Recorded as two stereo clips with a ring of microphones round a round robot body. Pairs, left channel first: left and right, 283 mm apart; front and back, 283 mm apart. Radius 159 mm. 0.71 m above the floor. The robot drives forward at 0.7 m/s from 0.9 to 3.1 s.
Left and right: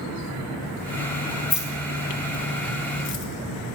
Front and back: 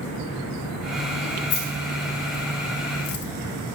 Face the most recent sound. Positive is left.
turn(degrees=40)